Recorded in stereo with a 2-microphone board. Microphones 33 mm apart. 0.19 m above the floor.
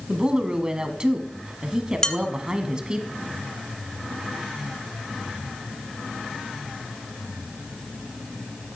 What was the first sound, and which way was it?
A woman speaking, 25° right (ahead or behind).